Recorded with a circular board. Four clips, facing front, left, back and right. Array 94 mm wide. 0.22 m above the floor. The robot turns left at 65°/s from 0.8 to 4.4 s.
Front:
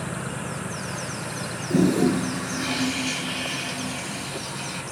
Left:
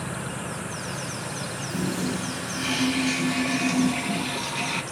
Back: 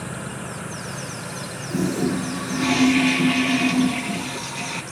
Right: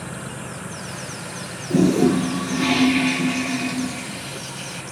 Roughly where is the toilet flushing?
Ahead right.